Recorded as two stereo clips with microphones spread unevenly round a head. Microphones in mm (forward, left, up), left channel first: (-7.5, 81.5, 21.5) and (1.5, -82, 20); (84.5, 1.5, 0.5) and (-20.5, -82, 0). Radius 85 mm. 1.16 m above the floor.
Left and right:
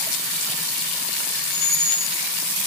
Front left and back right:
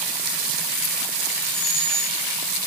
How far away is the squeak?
About 6.5 m.